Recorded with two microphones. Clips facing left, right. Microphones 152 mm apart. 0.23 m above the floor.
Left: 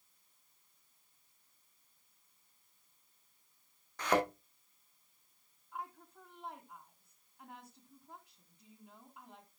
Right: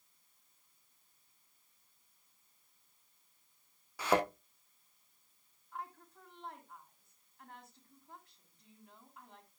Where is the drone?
No drone in this recording.